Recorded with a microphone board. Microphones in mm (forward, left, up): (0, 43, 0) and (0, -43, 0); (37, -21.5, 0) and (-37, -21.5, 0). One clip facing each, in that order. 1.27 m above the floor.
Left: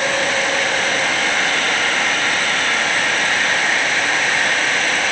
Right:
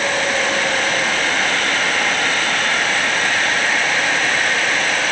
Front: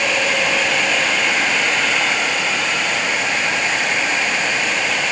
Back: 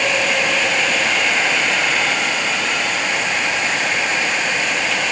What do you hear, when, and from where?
Only background noise.